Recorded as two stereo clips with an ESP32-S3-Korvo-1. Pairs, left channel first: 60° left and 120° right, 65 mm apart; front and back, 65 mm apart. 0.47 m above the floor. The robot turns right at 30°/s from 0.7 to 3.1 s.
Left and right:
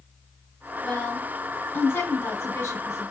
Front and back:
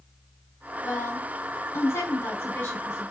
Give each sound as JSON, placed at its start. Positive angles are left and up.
{"t": 0.8, "sound": "a woman speaking", "azimuth_deg": -15, "distance_m": 1.5}